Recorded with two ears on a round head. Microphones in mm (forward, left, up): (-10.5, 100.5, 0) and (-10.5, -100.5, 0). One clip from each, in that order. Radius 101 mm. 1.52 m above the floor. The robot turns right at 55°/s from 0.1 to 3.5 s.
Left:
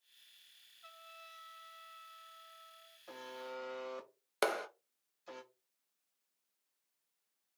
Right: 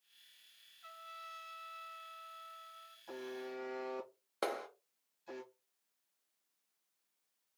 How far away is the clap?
About 0.8 m.